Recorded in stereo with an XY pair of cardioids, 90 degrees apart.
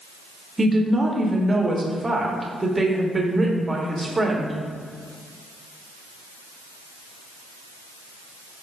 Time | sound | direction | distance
0.6 | a woman speaking | 20° right | 0.7 m